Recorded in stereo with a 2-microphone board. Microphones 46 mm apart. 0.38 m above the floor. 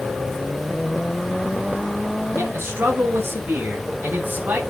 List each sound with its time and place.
2.4 s a man speaking: 60° right (ahead or behind), 5 m; by 4.6 s 40° right (ahead or behind), 4.5 m